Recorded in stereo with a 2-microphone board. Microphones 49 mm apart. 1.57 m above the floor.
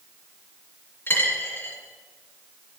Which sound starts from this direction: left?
A dropped coin, at 1.1 s.